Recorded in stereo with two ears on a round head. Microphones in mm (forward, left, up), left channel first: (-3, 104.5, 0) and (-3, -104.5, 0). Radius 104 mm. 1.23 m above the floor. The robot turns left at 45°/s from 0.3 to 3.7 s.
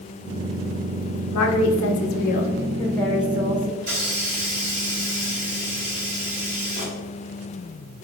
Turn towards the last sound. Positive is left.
turn(degrees=-45)  # may be behind; listen again after turning